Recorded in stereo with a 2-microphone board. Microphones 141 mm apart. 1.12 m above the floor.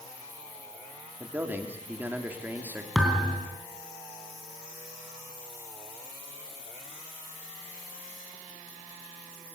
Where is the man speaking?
15° right (ahead or behind), 3.5 m.